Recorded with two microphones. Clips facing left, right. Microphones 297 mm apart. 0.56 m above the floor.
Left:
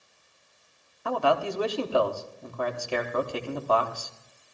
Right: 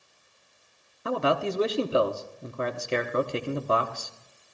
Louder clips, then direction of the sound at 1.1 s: Even; 25° right (ahead or behind).